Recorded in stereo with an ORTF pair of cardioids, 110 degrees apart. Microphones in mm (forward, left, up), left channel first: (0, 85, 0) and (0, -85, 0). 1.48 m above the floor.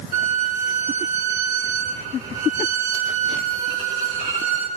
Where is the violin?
45° right, 5.5 m.